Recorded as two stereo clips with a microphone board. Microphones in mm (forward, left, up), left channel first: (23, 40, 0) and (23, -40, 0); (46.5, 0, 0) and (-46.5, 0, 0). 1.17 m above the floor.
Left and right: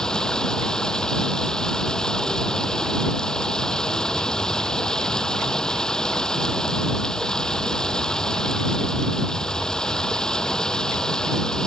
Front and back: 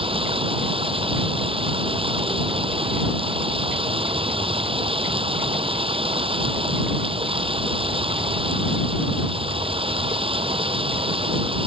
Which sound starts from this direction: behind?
Running water, at 0.0 s.